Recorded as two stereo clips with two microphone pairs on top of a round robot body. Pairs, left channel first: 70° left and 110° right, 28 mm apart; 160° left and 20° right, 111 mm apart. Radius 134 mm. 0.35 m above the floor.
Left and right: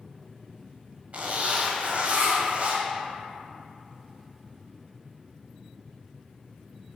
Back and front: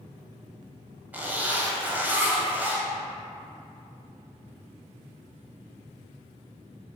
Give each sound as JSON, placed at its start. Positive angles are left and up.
{"t": 1.1, "sound": "a zipper", "azimuth_deg": -100, "distance_m": 0.8}